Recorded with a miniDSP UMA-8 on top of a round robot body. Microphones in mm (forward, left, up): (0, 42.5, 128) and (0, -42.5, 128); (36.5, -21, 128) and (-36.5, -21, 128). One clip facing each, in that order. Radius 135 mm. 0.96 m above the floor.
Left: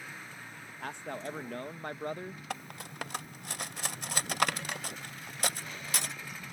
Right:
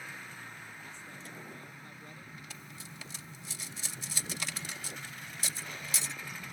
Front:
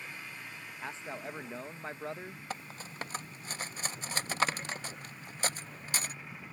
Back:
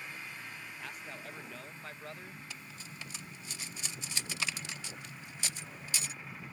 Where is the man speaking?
65° left.